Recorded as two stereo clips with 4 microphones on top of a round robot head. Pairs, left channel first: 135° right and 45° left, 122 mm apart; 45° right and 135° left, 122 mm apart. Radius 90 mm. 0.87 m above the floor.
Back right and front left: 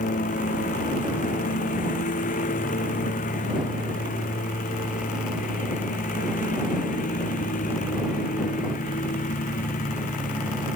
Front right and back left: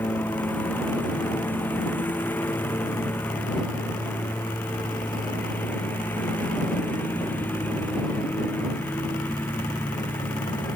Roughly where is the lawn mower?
Behind right.